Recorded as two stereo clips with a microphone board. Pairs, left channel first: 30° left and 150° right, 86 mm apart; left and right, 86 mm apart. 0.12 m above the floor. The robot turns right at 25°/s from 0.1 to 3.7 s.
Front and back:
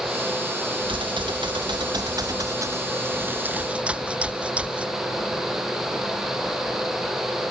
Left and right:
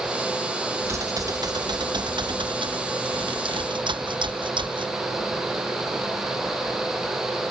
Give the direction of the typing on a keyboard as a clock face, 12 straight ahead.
5 o'clock.